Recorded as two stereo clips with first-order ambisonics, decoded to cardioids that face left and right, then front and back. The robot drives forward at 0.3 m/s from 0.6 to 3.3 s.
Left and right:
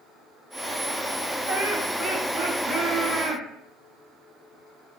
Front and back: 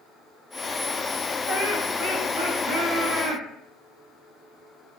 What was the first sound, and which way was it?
Laughter, 140° right.